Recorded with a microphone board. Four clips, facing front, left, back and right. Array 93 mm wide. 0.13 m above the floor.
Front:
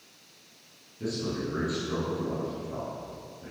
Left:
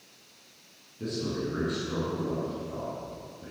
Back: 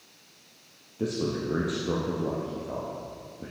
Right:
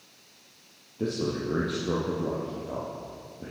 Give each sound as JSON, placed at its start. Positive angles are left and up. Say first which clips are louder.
{"t": 1.0, "sound": "a man speaking", "louder": "right 3 dB, back 3 dB", "azimuth_deg": -140, "distance_m": 3.5}